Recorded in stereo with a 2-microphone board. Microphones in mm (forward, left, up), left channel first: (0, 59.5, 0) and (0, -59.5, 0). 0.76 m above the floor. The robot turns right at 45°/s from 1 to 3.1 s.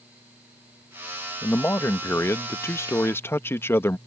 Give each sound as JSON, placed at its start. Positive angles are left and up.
{"t": 1.4, "sound": "a man speaking", "side_deg": 15}